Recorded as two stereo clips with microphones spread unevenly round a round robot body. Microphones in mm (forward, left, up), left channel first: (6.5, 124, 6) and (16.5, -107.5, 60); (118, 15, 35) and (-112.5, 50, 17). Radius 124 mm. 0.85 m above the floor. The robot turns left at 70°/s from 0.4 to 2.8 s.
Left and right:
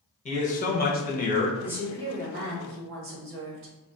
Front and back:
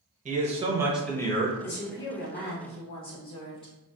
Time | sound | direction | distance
0.2 | a man speaking | 130° left | 0.8 m
1.6 | a woman speaking | 10° left | 0.9 m